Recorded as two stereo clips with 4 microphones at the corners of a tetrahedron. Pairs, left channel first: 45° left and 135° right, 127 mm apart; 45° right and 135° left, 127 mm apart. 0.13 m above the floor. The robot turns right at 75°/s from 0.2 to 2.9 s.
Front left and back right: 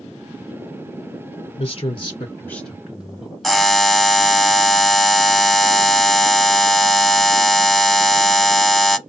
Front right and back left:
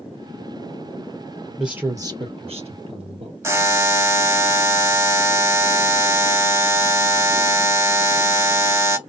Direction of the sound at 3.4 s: 130° left.